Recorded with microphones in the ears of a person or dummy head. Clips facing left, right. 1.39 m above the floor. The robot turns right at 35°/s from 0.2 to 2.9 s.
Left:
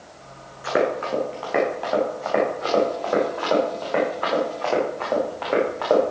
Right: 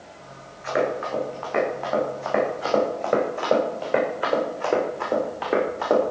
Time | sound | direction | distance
0.6 | running footsteps | 45° left (ahead or behind) | 7.5 m